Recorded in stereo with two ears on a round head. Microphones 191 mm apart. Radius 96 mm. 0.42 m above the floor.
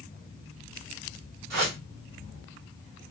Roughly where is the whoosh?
Right.